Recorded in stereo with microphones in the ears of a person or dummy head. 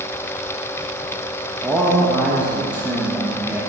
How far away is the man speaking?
About 0.9 m.